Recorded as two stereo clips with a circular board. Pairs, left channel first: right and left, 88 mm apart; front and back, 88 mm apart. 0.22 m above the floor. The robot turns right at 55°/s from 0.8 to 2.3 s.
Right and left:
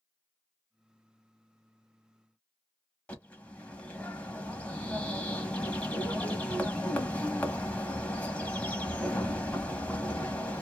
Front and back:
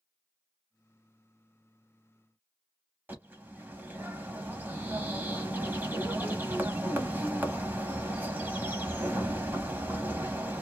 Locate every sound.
3.1 s a bird: 145° right, 0.8 m